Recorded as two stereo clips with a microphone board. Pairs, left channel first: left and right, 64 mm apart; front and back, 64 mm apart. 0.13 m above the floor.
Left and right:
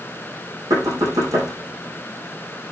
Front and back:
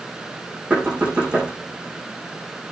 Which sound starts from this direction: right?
Knocking, at 0.7 s.